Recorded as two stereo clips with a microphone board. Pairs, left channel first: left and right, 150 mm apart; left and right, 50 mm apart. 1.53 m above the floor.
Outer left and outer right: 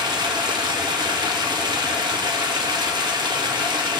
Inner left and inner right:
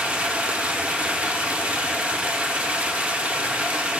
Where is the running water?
30° right (ahead or behind), 1.2 m.